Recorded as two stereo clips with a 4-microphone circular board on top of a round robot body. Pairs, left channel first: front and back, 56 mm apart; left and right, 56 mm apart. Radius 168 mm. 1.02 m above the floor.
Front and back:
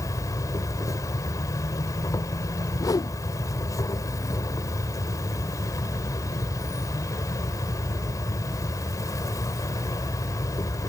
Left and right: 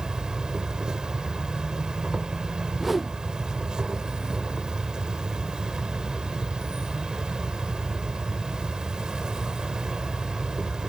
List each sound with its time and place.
0.0 s an insect: 15° right
2.8 s a whoosh: 5° right